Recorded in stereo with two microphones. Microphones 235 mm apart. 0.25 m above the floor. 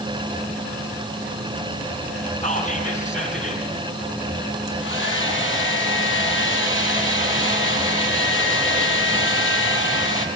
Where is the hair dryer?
55° left (ahead or behind), 4 m.